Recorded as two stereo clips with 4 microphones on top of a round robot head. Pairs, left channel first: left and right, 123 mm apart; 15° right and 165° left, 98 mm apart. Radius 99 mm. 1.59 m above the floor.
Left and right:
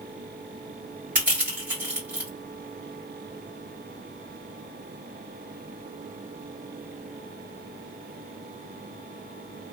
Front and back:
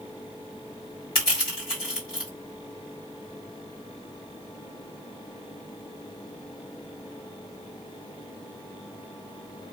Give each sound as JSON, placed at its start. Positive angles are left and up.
{"t": 1.1, "sound": "crushing", "azimuth_deg": -25, "distance_m": 1.5}